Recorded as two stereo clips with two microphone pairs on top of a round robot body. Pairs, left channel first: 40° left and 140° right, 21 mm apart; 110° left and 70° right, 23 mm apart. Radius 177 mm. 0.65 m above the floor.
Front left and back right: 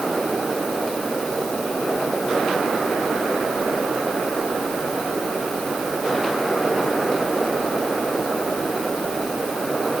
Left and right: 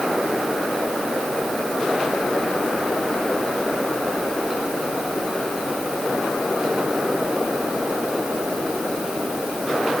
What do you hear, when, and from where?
Only background noise.